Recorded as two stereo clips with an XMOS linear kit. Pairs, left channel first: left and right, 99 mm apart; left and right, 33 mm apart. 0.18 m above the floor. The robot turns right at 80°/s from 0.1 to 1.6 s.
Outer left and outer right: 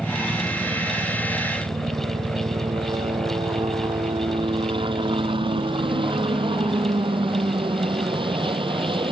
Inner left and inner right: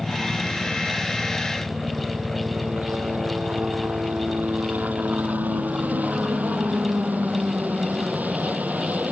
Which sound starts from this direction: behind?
A helicopter, at 0.0 s.